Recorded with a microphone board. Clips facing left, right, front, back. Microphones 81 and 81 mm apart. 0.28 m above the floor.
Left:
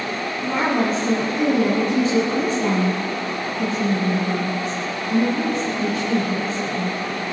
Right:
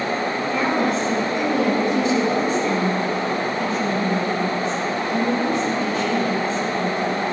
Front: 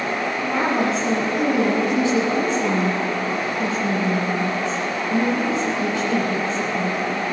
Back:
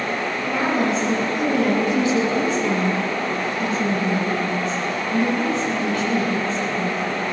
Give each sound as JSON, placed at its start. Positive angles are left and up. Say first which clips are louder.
{"t": 0.4, "sound": "a woman speaking", "louder": "left 2 dB, even", "azimuth_deg": 55, "distance_m": 2.5}